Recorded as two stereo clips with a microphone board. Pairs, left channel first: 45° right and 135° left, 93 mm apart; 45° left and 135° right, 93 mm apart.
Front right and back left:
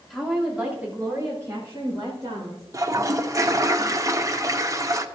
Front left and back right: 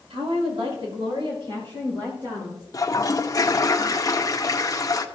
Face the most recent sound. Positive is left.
turn(degrees=90)